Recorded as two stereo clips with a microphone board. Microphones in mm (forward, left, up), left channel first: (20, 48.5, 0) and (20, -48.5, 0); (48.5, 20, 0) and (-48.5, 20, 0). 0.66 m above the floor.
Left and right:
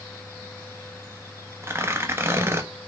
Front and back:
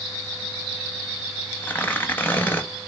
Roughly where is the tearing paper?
Ahead right.